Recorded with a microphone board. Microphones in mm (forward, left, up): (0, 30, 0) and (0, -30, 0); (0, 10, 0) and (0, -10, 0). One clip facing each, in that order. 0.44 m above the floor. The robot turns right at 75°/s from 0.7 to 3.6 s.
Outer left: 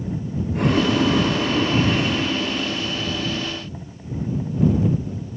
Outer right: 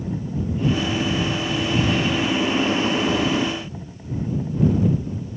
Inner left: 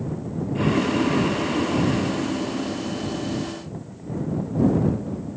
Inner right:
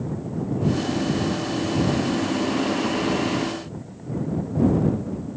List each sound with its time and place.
0.6 s boiling: 70° left; by 3.6 s 75° right